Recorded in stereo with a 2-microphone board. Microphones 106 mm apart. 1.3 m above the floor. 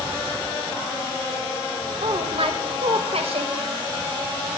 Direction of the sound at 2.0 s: 70° right (ahead or behind).